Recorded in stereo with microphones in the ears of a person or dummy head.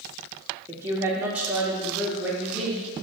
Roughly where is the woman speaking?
Centre.